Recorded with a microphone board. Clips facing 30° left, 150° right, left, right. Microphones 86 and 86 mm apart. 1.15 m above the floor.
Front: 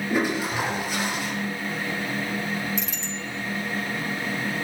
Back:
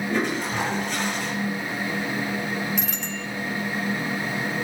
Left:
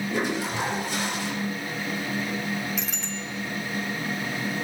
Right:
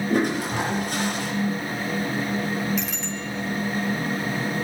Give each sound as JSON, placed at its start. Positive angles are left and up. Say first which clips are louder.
{"t": 0.1, "sound": "a toilet flushing", "louder": "front 2 dB, right 5 dB", "azimuth_deg": -50, "distance_m": 10.0}
{"t": 2.8, "sound": "a bicycle bell", "louder": "back 2 dB, right 4 dB", "azimuth_deg": 180, "distance_m": 4.0}